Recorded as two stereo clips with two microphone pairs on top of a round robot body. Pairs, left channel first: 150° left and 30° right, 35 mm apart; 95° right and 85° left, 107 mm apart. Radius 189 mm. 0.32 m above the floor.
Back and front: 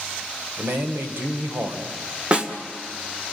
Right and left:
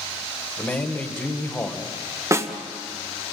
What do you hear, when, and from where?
0.6 s a man speaking: 20° right, 2.5 m
2.3 s a snare drum: 30° left, 1.8 m